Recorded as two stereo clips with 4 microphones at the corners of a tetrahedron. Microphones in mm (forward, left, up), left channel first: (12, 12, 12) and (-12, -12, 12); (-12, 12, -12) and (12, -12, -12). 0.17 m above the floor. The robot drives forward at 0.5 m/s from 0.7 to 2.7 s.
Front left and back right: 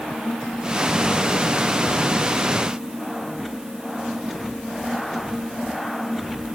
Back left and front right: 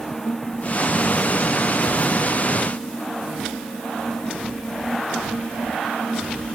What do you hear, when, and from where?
Only background noise.